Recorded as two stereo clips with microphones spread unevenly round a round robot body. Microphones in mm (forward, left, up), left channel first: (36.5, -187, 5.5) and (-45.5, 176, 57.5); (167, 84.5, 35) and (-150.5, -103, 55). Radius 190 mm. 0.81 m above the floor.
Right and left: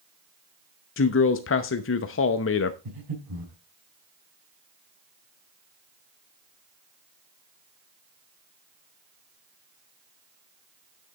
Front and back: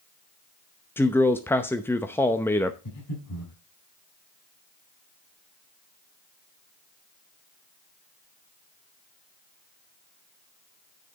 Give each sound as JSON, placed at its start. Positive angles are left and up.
{"t": 1.0, "sound": "a man speaking", "azimuth_deg": -50, "distance_m": 0.7}
{"t": 2.9, "sound": "breathing", "azimuth_deg": 75, "distance_m": 4.5}